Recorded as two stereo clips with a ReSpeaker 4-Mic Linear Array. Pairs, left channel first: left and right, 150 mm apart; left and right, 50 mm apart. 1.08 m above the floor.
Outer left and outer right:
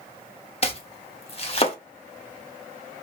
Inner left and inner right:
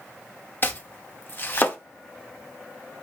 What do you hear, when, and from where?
0.6 s chopping: 40° left (ahead or behind), 0.7 m